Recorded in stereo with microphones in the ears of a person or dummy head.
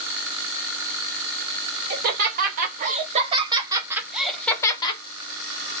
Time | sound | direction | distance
1.9 | laughter | 50° right (ahead or behind) | 1.9 m